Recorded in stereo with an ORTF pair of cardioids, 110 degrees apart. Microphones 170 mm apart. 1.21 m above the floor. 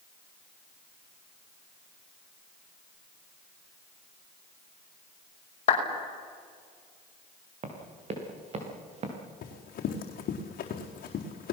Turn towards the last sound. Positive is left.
turn(degrees=60)